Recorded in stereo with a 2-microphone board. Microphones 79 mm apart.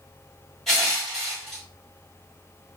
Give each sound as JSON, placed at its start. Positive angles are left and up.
{"t": 0.7, "sound": "crushing", "side_deg": 5, "distance_m": 3.5}